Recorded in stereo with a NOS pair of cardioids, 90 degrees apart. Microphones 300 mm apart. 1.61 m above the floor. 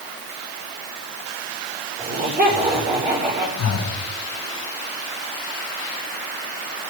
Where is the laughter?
25° right, 5.5 m.